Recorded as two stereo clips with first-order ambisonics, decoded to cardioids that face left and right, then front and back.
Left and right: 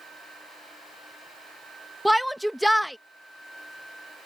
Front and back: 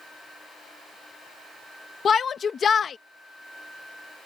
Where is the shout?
5° right.